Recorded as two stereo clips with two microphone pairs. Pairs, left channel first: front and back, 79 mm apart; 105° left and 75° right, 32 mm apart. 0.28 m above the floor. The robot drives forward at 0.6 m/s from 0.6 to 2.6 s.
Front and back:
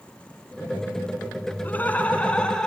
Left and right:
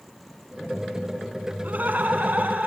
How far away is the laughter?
About 2.5 m.